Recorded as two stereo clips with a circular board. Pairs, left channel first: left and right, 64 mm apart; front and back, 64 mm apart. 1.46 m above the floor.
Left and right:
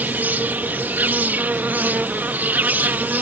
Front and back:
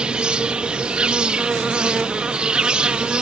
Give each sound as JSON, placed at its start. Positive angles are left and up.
{"t": 0.0, "sound": "an insect", "azimuth_deg": -115}